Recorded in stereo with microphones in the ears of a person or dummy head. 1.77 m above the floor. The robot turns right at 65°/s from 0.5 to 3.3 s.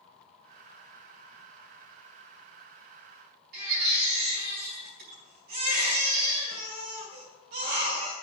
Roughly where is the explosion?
I don't hear an explosion.